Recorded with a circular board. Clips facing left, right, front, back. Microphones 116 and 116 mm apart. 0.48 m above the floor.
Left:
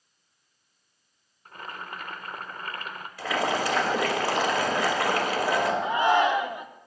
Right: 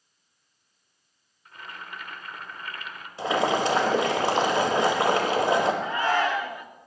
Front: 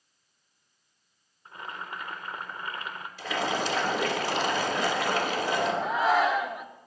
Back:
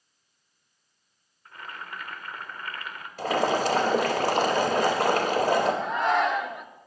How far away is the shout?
About 0.7 m.